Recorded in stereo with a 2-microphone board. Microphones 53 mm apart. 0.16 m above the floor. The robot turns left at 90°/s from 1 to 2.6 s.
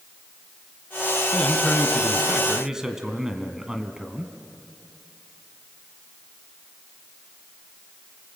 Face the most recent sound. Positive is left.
turn(degrees=-10)  # may be behind; listen again after turning